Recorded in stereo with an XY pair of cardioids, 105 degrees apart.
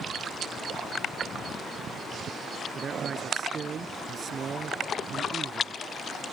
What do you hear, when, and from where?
2.8 s a man speaking: 40° right